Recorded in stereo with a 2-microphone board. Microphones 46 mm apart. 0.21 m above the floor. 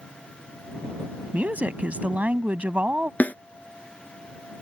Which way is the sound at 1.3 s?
35° right (ahead or behind).